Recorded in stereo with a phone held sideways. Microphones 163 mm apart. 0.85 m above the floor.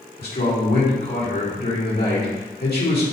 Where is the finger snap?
I don't hear a finger snap.